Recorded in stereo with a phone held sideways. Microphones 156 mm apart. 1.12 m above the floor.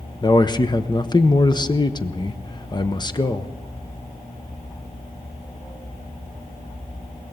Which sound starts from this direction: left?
A man speaking, at 0.2 s.